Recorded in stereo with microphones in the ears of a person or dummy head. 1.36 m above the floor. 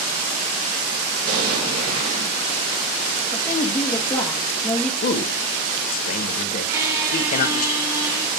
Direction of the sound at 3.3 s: 15° left (ahead or behind).